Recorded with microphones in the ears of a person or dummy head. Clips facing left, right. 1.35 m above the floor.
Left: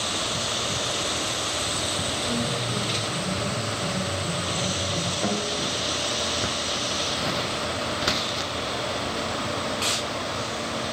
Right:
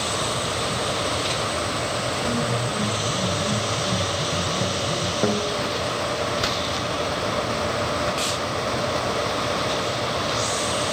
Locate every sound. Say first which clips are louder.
2.2 s a piano: right 2 dB; 85° right, 5.5 m
5.2 s a guitar: right 5 dB; 45° right (ahead or behind), 1.3 m